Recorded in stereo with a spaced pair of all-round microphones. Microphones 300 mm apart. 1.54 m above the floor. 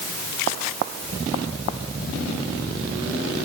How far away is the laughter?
I don't hear laughter.